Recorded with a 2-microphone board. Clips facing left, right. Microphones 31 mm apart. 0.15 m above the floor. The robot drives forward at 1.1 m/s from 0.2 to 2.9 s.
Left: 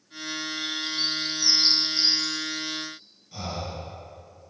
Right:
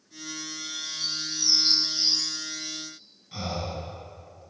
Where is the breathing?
35° right (ahead or behind), 2.5 m.